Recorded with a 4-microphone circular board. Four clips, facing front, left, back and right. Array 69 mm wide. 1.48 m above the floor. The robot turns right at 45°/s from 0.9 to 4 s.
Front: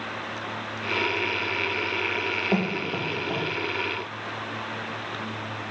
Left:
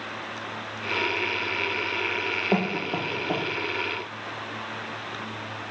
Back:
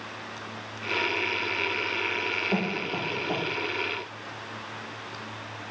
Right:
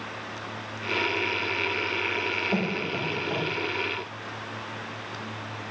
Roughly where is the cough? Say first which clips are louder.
Left 2 dB, front 4 dB; left.